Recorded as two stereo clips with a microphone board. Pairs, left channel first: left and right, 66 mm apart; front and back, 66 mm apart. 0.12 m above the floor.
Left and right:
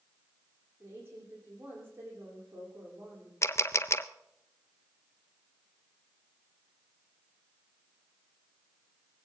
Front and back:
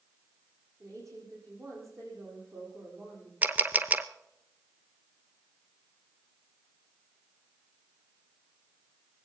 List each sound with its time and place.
0.8 s a woman speaking: 145° right, 4.5 m
3.4 s a camera shutter: 120° left, 0.5 m